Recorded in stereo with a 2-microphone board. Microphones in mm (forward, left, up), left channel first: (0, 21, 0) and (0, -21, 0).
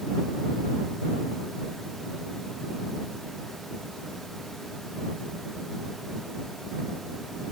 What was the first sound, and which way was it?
Only background noise.